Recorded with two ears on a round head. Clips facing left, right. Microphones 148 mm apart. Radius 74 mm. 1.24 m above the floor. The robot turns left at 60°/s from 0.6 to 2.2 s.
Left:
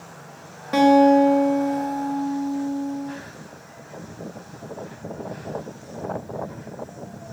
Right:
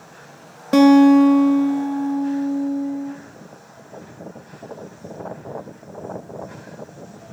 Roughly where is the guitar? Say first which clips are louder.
Right 4 dB; ahead right.